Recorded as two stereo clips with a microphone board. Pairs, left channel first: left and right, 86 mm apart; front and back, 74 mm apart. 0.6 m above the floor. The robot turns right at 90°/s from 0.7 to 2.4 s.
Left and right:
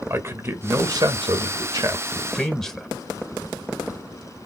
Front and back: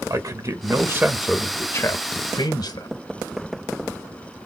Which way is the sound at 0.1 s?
145° right.